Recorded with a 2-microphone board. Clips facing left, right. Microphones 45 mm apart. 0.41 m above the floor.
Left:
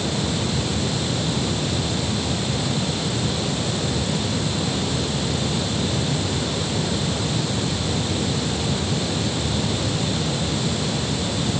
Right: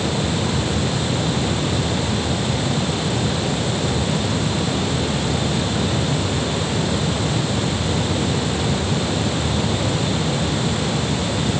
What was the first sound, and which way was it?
Only background noise.